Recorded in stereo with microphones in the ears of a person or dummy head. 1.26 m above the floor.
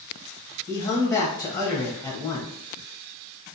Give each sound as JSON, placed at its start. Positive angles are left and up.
{"t": 0.7, "sound": "a man speaking", "side_deg": 20, "distance_m": 0.7}